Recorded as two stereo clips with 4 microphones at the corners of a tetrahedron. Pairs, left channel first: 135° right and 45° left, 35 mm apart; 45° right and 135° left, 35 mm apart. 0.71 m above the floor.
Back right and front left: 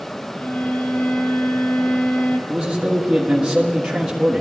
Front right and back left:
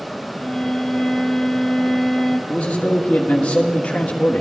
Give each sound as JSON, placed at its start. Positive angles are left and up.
{"t": 0.4, "sound": "a violin", "azimuth_deg": -125, "distance_m": 1.5}
{"t": 2.5, "sound": "a man speaking", "azimuth_deg": 5, "distance_m": 1.5}